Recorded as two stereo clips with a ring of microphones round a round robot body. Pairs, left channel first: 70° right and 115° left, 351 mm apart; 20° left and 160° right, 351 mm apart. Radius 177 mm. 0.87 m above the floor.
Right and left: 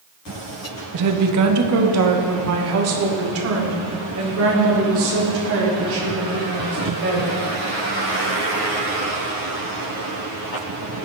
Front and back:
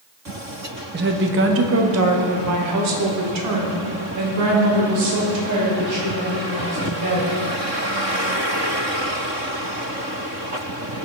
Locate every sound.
0.9 s a woman speaking: 145° left, 0.9 m; by 7.3 s 165° left, 4.5 m